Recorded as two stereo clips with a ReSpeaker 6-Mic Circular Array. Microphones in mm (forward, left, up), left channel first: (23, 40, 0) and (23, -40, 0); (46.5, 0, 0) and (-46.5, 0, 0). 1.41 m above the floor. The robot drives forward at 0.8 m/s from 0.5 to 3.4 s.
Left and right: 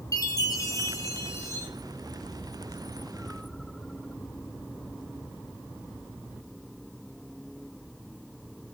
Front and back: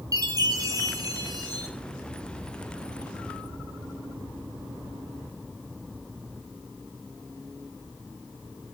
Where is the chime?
130° left, 3.5 m; by 1.7 s 140° left, 4 m.